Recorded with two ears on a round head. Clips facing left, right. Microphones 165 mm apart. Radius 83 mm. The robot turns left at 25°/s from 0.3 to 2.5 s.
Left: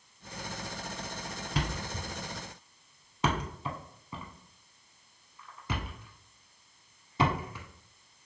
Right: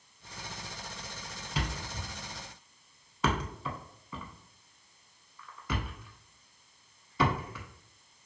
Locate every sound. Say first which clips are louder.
1.6 s a thud: left 2 dB; 45° left (ahead or behind), 0.6 m; by 7.7 s 25° left (ahead or behind), 0.6 m